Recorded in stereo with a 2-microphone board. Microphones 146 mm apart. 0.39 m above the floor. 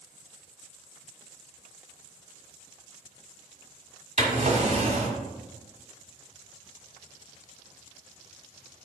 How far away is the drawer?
About 1.6 m.